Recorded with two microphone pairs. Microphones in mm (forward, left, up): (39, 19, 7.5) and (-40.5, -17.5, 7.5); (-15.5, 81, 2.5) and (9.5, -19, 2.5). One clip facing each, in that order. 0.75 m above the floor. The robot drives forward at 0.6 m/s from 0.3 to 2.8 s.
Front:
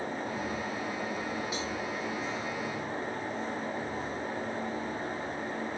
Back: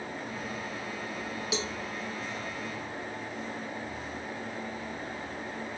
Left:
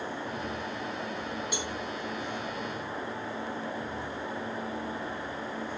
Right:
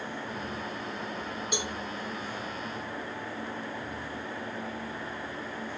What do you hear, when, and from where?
1.5 s a cowbell: 150° right, 0.7 m